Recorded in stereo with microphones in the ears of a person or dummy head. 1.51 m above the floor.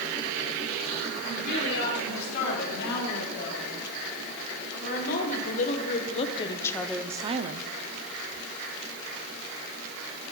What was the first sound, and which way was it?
A woman speaking, 55° left (ahead or behind).